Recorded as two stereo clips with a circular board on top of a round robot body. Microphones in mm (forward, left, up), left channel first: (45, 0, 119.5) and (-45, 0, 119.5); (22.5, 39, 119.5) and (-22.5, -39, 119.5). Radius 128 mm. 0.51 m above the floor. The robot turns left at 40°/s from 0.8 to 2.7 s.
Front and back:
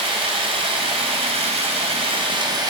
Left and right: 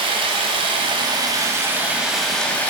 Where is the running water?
150° right, 0.8 m; by 2.7 s 130° left, 0.8 m.